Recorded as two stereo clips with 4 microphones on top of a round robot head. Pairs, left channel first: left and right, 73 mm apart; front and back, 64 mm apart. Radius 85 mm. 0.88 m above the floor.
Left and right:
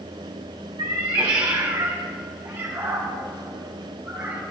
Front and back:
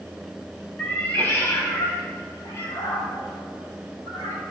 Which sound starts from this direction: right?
A cat meowing, at 0.8 s.